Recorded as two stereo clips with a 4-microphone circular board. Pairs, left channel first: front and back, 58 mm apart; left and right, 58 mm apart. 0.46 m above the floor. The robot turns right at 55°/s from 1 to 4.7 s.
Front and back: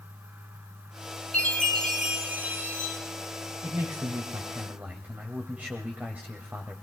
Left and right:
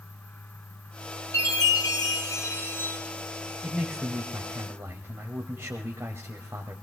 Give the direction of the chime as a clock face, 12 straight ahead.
10 o'clock.